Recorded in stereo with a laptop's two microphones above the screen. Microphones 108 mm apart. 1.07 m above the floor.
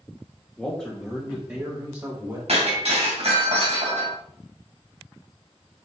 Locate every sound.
0.6 s a man speaking: 10° left (ahead or behind), 1.9 m; by 2.4 s 35° right (ahead or behind), 3 m
2.5 s breaking glass: 65° right (ahead or behind), 2.5 m